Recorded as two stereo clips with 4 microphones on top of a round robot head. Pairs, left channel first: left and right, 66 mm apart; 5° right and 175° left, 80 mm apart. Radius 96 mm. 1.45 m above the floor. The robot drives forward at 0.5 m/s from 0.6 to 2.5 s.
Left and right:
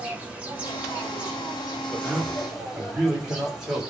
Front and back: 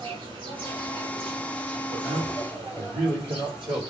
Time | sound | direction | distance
0.0 | an insect | 160° right | 0.8 m
1.9 | a man speaking | 170° right | 1.6 m